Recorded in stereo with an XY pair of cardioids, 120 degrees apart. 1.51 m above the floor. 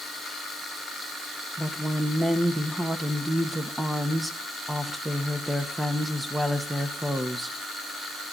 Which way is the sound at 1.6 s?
10° right.